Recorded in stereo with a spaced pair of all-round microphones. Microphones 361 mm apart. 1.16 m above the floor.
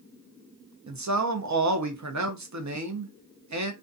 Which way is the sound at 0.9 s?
55° right (ahead or behind).